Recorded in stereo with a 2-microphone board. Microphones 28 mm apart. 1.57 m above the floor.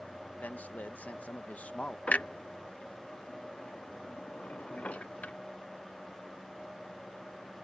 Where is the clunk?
60° left (ahead or behind).